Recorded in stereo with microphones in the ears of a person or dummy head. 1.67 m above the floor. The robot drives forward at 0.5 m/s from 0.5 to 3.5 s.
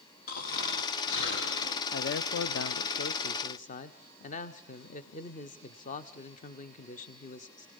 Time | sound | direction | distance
0.3 | snoring | 55° left (ahead or behind) | 1.1 m
1.9 | a man speaking | 55° left (ahead or behind) | 0.5 m